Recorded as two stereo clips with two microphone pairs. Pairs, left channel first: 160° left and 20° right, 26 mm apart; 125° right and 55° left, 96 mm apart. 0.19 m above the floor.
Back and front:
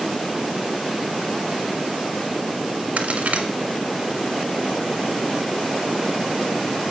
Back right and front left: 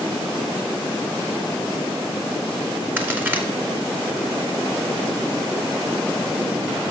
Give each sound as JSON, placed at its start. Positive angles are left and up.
{"t": 3.0, "sound": "a crack", "azimuth_deg": -15, "distance_m": 0.8}